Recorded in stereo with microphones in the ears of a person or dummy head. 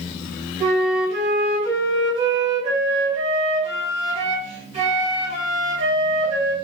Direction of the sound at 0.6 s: 30° right (ahead or behind).